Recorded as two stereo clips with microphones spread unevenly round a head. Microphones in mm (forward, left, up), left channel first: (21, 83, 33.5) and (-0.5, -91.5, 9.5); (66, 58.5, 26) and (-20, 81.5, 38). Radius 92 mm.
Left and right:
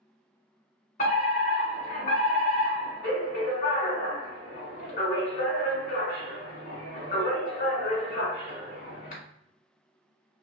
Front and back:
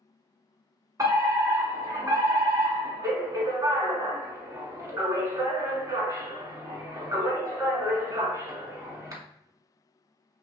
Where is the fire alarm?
120° left, 1.8 m.